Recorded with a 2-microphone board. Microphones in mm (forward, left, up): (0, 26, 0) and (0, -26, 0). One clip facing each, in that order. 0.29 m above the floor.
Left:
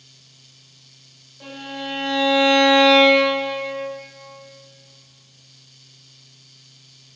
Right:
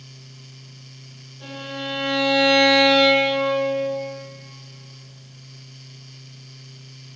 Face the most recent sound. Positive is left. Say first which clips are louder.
# even
turn(degrees=35)  # may be behind; listen again after turning